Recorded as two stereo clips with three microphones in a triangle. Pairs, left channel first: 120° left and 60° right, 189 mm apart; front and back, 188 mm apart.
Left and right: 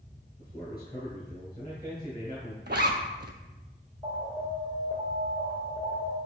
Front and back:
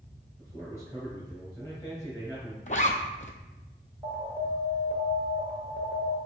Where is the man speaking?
65° left, 1.9 m.